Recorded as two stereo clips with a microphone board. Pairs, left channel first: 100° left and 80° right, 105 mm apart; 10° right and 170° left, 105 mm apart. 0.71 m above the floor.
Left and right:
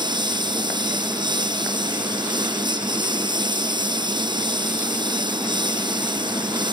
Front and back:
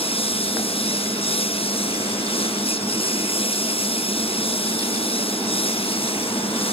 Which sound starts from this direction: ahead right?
A lawn mower, at 0.0 s.